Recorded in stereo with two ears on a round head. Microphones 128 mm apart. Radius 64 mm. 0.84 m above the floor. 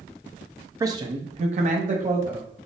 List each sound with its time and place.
0.8 s a man speaking: 20° right (ahead or behind), 0.7 m; by 2.5 s 55° right (ahead or behind), 1.1 m